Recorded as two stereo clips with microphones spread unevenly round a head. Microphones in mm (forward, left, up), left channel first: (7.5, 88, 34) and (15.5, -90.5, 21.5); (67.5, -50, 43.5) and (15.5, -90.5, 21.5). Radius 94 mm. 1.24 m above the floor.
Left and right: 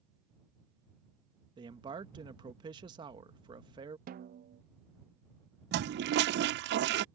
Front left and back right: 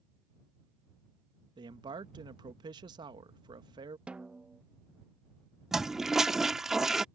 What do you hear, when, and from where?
1.6 s a man speaking: 155° right
4.1 s a snare drum: 90° right
5.7 s a toilet flushing: 55° right